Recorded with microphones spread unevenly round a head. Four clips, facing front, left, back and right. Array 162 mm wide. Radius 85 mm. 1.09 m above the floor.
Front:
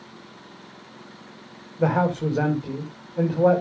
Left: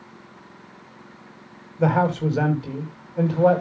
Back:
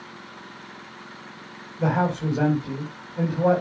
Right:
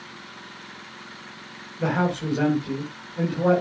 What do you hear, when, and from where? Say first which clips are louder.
1.8 s a man speaking: left 4 dB, front 2 dB; 35° left, 5.5 m